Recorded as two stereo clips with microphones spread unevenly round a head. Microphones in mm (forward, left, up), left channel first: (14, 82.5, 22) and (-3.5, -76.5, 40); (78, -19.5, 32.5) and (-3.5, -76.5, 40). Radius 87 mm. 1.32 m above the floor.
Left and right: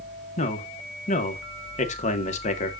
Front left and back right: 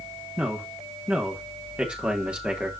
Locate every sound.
0.4 s a man speaking: 130° left, 1.6 m